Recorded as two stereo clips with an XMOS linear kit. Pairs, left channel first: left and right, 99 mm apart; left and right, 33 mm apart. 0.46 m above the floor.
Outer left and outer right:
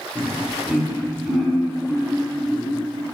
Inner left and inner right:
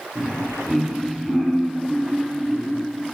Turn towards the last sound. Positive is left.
turn(degrees=-5)  # may be behind; listen again after turning